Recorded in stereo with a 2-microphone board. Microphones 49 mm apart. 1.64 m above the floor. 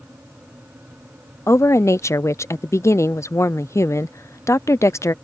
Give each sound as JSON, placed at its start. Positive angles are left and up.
{"t": 1.5, "sound": "a woman speaking", "side_deg": 80}